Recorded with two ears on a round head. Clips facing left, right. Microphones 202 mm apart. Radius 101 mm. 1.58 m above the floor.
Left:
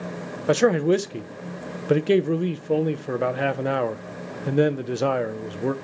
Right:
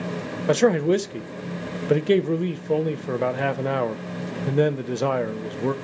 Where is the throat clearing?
I don't hear throat clearing.